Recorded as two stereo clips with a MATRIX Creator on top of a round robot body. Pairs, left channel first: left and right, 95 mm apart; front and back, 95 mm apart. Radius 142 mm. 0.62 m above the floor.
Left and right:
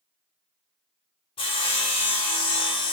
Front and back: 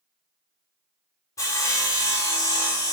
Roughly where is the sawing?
Ahead left.